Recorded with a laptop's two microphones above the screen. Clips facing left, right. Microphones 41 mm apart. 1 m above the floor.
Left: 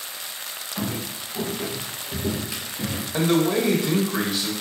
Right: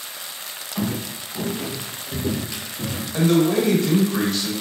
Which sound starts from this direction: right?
Footsteps, at 0.8 s.